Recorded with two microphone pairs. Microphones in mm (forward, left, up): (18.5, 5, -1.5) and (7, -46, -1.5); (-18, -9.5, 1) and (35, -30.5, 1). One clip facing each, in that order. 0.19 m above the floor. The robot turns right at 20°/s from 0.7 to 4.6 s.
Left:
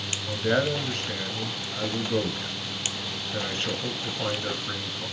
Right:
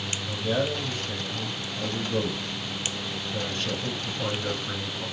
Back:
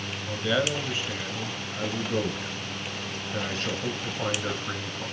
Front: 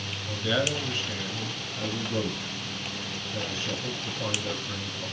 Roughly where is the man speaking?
Left.